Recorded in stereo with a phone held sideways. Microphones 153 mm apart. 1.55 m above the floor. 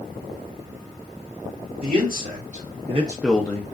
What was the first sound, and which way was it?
A man speaking, 70° right (ahead or behind).